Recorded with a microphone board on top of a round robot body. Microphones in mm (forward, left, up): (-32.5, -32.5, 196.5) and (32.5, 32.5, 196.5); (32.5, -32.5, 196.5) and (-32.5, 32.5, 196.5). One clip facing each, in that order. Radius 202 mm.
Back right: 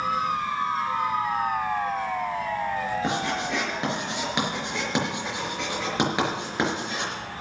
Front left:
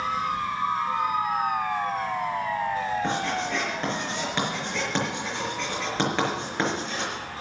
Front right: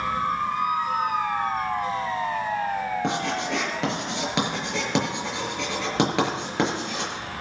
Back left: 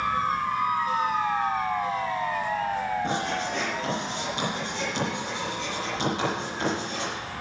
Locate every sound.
3.0 s writing: 60° right, 5 m